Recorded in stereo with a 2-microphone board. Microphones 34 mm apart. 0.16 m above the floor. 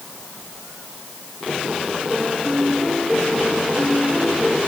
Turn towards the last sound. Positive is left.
turn(degrees=-5)  # may be behind; listen again after turning